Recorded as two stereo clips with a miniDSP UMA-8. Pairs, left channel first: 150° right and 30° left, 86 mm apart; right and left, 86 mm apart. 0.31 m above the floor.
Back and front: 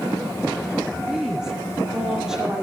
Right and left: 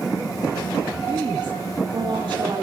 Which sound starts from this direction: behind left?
A woman speaking, at 1.1 s.